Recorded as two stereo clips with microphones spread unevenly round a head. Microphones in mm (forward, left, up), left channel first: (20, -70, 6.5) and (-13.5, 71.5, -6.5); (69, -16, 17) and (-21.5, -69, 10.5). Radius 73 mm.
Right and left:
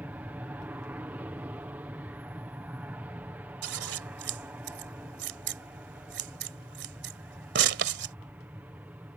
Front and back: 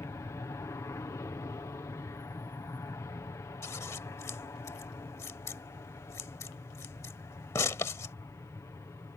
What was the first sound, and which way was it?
An aircraft, 45° left.